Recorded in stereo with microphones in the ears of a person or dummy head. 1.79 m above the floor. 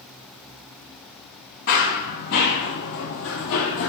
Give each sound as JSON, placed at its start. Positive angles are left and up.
{"t": 1.7, "sound": "running footsteps", "side_deg": 50, "distance_m": 3.0}